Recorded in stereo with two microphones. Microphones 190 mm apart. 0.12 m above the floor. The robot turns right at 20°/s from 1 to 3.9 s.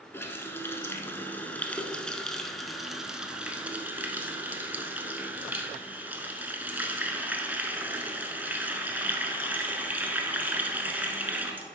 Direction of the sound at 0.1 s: 10° left (ahead or behind).